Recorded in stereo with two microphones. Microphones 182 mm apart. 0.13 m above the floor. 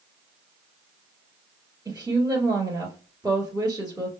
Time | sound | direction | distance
1.9 | a woman speaking | 20° right (ahead or behind) | 1.4 m